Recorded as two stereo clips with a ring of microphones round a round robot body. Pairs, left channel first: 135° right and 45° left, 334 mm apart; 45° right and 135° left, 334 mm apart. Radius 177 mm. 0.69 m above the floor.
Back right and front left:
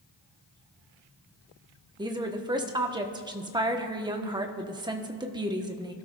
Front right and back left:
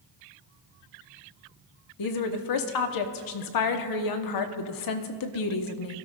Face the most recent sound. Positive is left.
turn(degrees=-30)